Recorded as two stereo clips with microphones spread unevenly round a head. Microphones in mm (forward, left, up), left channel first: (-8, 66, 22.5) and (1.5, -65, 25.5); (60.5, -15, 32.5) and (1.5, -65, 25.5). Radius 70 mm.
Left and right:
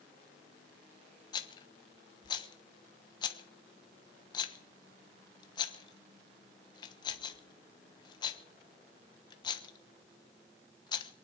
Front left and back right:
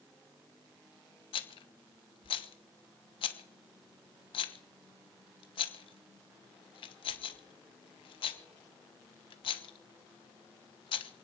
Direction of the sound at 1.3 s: 35° left.